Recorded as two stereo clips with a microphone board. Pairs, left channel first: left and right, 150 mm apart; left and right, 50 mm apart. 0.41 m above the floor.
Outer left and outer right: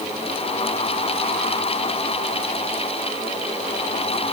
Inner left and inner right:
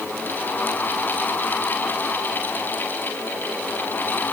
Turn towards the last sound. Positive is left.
No sound to turn to.